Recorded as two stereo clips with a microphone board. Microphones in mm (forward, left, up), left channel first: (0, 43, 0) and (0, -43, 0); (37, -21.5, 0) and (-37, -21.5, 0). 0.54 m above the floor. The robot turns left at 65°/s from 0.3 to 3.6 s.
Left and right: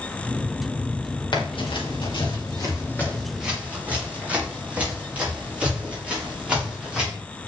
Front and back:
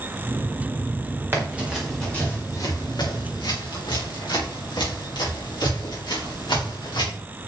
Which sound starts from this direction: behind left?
Running footsteps, at 1.3 s.